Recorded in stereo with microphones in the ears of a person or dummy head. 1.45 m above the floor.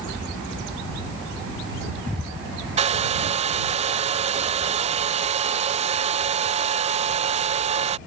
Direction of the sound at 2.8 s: 30° right (ahead or behind).